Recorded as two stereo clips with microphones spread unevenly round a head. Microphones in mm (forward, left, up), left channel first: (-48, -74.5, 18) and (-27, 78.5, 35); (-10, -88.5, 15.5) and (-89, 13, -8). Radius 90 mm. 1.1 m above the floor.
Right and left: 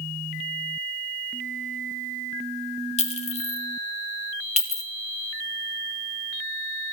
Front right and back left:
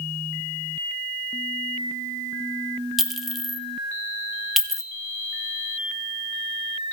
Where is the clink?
145° right, 1.4 m.